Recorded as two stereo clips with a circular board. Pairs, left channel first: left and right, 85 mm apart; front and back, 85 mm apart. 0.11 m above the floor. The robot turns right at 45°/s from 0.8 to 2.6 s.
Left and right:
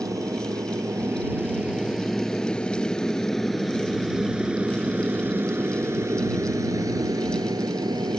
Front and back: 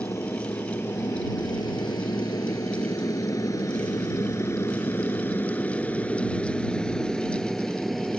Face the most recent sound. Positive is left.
turn(degrees=-90)